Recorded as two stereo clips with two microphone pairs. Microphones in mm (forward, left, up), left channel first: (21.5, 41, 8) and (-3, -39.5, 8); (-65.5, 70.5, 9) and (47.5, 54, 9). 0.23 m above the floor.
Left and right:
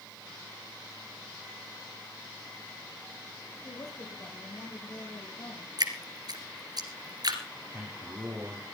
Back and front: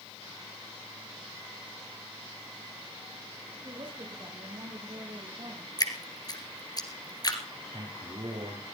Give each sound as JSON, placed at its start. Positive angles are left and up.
{"t": 3.6, "sound": "a woman speaking", "azimuth_deg": 35, "distance_m": 6.5}
{"t": 5.8, "sound": "dripping", "azimuth_deg": -140, "distance_m": 2.5}
{"t": 7.7, "sound": "a man speaking", "azimuth_deg": -40, "distance_m": 4.0}